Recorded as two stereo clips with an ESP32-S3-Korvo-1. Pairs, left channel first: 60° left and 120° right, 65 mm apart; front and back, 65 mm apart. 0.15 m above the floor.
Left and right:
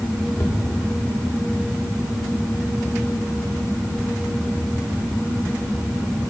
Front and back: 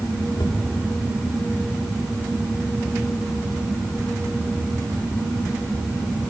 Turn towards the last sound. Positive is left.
turn(degrees=-10)